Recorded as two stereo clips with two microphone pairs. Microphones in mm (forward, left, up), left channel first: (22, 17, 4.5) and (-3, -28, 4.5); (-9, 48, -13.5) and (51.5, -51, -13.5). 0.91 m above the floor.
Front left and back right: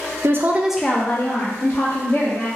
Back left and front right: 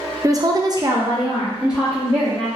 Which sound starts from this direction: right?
A woman speaking, at 0.2 s.